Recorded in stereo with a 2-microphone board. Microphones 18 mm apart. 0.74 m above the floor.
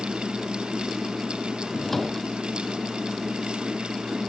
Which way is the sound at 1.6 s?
10° left (ahead or behind).